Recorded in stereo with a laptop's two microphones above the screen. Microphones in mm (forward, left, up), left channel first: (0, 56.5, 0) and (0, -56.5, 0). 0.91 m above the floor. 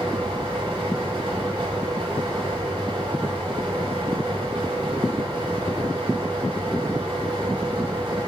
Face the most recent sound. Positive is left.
turn(degrees=-50)  # may be behind; listen again after turning